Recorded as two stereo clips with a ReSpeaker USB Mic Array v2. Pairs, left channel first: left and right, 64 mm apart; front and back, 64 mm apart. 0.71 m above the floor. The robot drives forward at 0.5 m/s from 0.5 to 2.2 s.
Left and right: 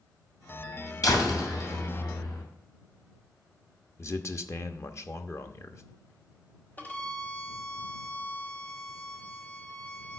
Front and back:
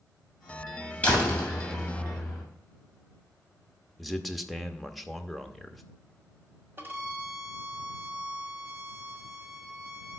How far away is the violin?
About 1.2 m.